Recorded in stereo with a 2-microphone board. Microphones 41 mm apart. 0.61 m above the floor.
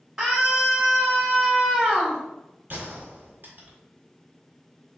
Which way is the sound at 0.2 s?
20° right (ahead or behind).